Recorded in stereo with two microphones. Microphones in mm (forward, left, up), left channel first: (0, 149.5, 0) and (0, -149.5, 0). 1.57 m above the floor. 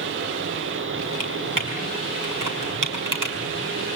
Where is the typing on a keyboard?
75° right (ahead or behind), 4 m.